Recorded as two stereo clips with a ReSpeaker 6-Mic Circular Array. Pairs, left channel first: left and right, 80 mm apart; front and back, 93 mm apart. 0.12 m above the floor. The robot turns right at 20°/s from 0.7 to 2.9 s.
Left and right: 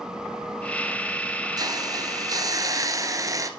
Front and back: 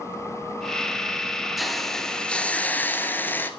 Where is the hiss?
90° right, 1.5 m; by 3.5 s 65° right, 1.5 m.